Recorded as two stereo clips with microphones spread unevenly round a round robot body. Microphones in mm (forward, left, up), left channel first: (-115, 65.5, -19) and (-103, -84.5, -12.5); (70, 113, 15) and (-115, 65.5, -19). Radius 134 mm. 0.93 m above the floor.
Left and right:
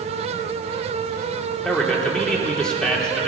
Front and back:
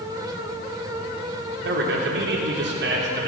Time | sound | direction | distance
1.6 | a man speaking | straight behind | 3 m